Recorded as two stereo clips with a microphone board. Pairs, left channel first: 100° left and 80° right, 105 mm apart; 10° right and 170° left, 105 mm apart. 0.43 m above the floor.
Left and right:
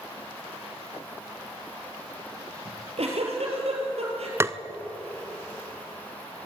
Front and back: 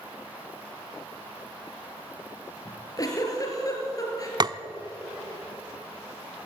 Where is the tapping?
140° right, 0.8 m.